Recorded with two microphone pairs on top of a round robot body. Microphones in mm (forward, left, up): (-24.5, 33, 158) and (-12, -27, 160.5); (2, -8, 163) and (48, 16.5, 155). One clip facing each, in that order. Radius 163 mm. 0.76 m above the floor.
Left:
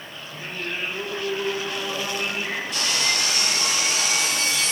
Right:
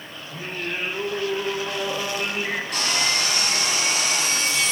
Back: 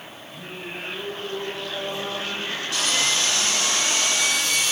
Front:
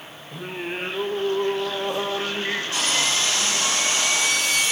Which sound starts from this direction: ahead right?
Sawing, at 2.7 s.